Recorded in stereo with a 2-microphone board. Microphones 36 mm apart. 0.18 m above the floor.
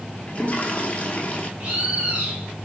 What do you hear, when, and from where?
0.3 s a toilet flushing: 35° left (ahead or behind), 0.9 m
1.6 s a bird: 40° right (ahead or behind), 1.7 m